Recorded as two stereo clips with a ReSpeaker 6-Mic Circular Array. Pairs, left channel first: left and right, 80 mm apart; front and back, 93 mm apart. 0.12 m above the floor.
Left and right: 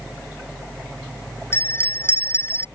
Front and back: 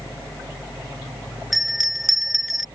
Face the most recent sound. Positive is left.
turn(degrees=90)